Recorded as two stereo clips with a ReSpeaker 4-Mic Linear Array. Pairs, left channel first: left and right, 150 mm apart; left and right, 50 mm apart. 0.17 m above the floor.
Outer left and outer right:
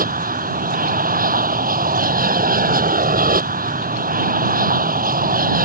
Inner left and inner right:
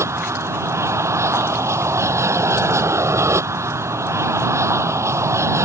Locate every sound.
0.0 s an aircraft: 70° right (ahead or behind)